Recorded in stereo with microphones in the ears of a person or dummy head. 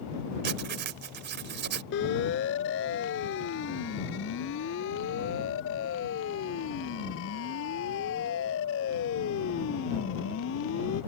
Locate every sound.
0.4 s writing: 55° right (ahead or behind)
1.9 s a siren: 65° left (ahead or behind); by 11.0 s 75° left (ahead or behind)